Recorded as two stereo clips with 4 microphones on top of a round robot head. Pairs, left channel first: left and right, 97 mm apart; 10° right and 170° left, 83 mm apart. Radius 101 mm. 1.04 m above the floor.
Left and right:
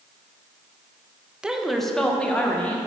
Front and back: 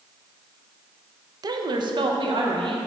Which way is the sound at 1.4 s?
170° right.